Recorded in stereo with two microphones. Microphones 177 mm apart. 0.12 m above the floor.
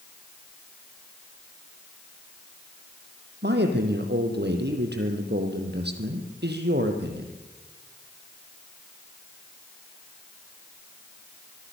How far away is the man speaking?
About 3.5 m.